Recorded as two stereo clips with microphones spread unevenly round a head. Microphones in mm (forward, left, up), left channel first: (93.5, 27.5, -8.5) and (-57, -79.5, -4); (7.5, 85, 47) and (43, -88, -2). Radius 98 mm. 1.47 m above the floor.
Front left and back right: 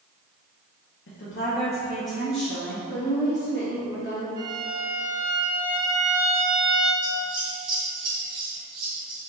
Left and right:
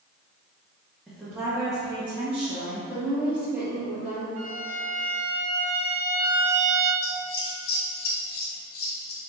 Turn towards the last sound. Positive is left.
turn(degrees=145)